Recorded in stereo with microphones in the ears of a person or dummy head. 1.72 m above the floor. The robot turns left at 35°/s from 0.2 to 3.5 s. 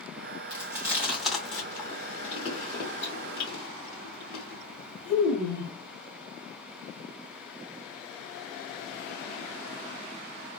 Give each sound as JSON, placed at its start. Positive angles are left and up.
{"t": 0.5, "sound": "chewing", "side_deg": -25, "distance_m": 0.8}